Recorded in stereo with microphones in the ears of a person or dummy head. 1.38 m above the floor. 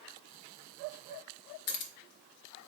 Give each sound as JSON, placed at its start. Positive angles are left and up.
{"t": 1.7, "sound": "keys jangling", "side_deg": 50, "distance_m": 0.6}